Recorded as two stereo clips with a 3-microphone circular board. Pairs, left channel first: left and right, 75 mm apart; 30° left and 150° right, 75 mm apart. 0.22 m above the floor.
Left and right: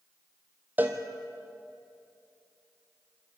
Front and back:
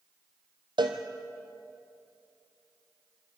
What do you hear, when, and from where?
0.8 s a cowbell: 155° right, 1.7 m